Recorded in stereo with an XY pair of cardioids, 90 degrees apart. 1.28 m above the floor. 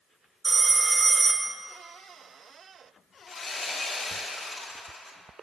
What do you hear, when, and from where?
0.4 s a phone ringing: 30° right, 0.6 m
3.3 s sawing: 55° left, 1.1 m